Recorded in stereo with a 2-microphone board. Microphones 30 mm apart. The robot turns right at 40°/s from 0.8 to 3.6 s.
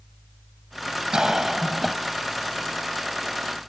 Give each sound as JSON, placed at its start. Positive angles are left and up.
{"t": 1.1, "sound": "a cough", "azimuth_deg": -35}